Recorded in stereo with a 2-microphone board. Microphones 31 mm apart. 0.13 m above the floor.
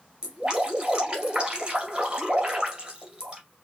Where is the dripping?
25° right (ahead or behind), 1.9 m.